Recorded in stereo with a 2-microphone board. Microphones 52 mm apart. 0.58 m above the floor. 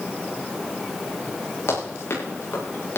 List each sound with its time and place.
1.7 s running footsteps: 55° left (ahead or behind), 9 m; by 3.0 s 50° left (ahead or behind), 9 m